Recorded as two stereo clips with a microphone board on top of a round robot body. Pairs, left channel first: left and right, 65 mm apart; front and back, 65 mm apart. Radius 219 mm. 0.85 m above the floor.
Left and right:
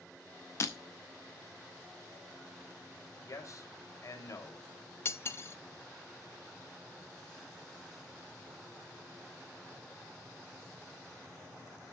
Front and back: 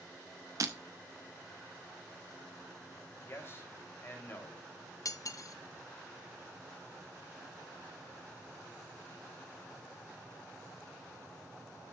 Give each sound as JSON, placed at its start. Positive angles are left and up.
{"t": 0.6, "sound": "breaking glass", "azimuth_deg": 140, "distance_m": 0.5}
{"t": 3.3, "sound": "a man speaking", "azimuth_deg": 55, "distance_m": 3.5}
{"t": 5.0, "sound": "cutlery clinking", "azimuth_deg": 35, "distance_m": 0.6}